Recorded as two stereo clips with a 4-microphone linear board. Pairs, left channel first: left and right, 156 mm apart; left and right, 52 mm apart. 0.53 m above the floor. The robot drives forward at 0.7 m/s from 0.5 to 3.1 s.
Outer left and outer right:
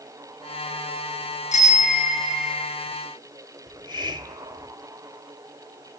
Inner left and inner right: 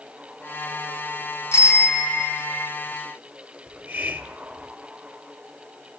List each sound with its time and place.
1.5 s a bicycle bell: 55° left (ahead or behind), 6 m; by 2.7 s 65° left (ahead or behind), 5.5 m
3.7 s a hiss: 30° right (ahead or behind), 1.9 m